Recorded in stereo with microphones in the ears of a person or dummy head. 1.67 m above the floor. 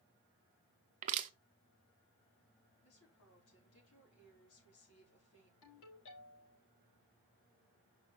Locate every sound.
1.0 s crushing: 45° right (ahead or behind), 0.7 m
2.8 s a woman speaking: 90° left, 5 m
5.6 s a ringtone: 80° left, 5.5 m